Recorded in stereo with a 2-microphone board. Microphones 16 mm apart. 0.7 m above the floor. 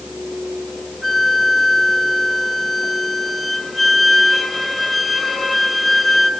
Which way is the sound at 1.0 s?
5° left (ahead or behind).